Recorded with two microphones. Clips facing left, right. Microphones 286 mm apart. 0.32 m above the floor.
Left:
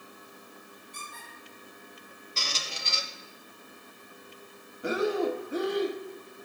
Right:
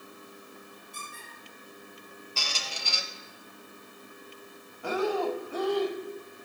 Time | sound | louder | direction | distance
0.9 | a squeak | right 1 dB | 40° right (ahead or behind) | 3.5 m
2.4 | a squeak | left 1 dB | 25° left (ahead or behind) | 0.6 m
4.8 | breathing | left 1 dB | 25° left (ahead or behind) | 0.5 m